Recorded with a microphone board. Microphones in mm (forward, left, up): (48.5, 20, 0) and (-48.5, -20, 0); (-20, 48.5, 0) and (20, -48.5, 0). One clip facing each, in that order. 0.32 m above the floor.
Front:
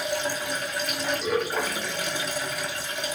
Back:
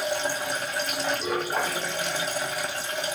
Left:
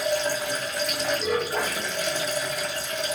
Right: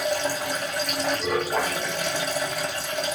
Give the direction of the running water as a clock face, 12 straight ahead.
3 o'clock.